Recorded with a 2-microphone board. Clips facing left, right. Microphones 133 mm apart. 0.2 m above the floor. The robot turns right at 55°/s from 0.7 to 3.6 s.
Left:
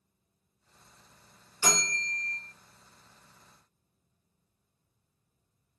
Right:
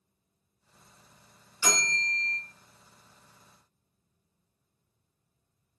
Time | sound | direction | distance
1.6 | a bell | 100° left | 1.2 m